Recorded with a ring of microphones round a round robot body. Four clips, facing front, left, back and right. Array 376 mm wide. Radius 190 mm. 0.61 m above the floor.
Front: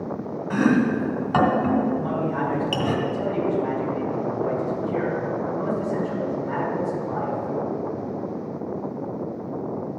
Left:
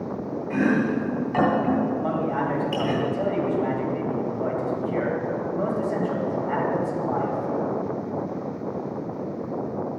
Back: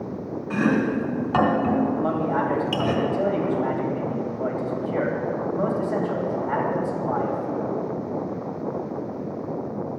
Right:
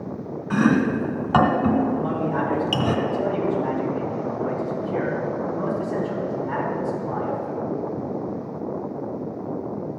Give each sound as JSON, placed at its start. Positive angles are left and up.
{"t": 0.5, "sound": "chopping", "azimuth_deg": -90, "distance_m": 2.0}
{"t": 2.0, "sound": "a man speaking", "azimuth_deg": 150, "distance_m": 3.0}